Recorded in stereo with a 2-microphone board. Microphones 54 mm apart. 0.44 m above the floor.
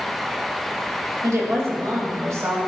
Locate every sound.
1.2 s a woman speaking: 60° right (ahead or behind), 2.5 m; by 2.7 s 65° right (ahead or behind), 3 m